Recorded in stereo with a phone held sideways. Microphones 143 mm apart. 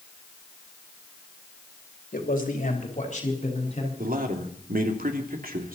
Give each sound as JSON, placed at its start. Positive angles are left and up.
{"t": 2.1, "sound": "a man speaking", "side_deg": 75, "distance_m": 3.0}
{"t": 4.0, "sound": "a man speaking", "side_deg": -85, "distance_m": 3.0}